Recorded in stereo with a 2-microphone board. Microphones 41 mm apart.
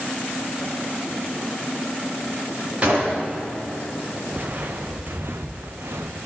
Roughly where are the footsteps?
Right.